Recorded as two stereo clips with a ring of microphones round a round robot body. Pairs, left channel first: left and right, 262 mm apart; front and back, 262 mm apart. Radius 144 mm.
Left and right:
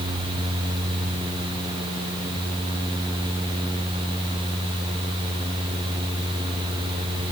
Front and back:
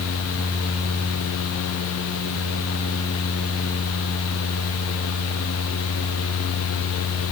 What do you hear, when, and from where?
Only background noise.